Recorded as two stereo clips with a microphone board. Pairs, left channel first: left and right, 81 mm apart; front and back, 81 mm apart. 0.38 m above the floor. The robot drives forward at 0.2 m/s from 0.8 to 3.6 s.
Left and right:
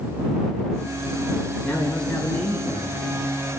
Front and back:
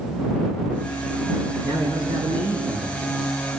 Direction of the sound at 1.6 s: 170° left.